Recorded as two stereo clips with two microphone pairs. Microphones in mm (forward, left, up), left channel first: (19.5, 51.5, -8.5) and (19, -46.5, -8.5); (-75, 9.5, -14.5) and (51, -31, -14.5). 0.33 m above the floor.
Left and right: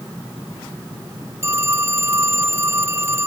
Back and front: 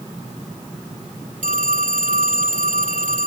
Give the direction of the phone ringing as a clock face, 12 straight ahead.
1 o'clock.